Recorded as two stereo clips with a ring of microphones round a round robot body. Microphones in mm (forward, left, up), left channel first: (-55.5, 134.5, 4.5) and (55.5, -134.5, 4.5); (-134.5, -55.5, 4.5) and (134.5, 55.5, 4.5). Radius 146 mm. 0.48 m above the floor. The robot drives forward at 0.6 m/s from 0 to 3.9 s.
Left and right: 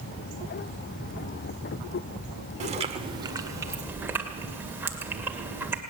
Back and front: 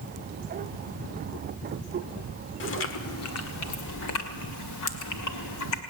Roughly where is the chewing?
Behind right.